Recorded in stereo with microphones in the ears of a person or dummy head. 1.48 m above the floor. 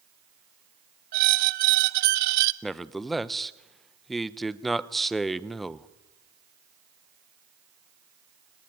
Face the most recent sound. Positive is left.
turn(degrees=0)  # may be behind; listen again after turning